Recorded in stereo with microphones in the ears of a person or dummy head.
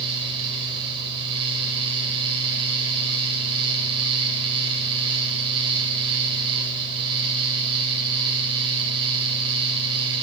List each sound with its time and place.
0.0 s a fan: 30° right (ahead or behind), 3.5 m